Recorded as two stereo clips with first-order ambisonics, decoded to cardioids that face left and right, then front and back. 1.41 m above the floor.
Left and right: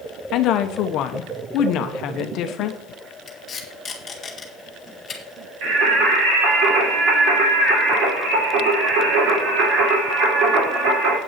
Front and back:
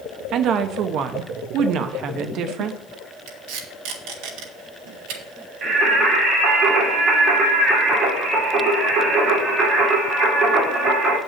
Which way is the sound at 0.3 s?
135° left.